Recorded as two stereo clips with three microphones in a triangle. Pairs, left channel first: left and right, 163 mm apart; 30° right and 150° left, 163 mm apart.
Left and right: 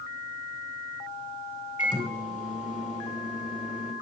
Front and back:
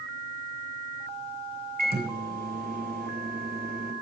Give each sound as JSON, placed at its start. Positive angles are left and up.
{"t": 1.8, "sound": "a microwave", "azimuth_deg": 130, "distance_m": 3.0}